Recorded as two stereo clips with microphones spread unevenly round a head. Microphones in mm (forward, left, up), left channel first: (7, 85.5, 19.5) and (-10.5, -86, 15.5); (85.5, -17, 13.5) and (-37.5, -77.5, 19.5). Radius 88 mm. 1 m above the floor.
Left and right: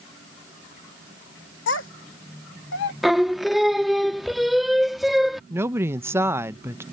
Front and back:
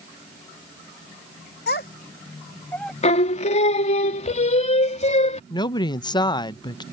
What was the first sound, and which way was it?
A child speaking, 65° left.